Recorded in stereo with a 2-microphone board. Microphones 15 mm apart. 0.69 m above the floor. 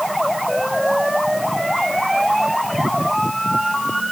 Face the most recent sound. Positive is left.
No sound to turn to.